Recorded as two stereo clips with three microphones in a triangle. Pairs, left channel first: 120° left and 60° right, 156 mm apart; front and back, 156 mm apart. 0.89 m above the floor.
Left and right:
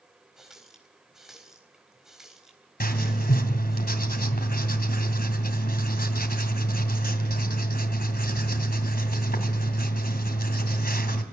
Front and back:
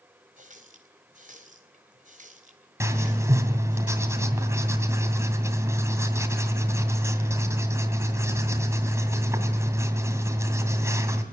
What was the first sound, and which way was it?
A running tap, 145° right.